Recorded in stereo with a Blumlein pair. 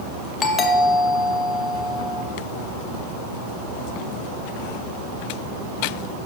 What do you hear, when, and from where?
0.4 s a doorbell: 25° left, 1.0 m